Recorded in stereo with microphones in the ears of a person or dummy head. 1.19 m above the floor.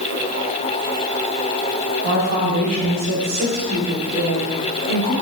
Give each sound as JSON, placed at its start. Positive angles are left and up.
{"t": 2.0, "sound": "a woman speaking", "side_deg": -40, "distance_m": 3.0}